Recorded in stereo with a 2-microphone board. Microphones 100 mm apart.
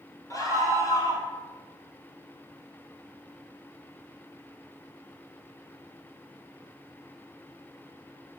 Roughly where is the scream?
Left.